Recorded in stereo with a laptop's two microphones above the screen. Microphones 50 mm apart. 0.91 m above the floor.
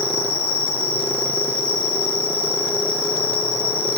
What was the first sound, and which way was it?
An insect, 20° right (ahead or behind).